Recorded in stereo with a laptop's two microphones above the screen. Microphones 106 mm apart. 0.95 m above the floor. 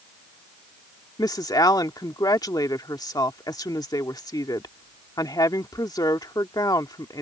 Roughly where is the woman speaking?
Left.